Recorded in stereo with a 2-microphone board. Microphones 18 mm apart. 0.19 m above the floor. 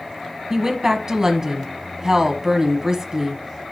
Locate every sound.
0.5 s a woman speaking: 30° right (ahead or behind), 1.1 m